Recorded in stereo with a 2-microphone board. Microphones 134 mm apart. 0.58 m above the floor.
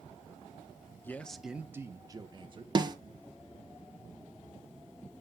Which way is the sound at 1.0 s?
15° left (ahead or behind).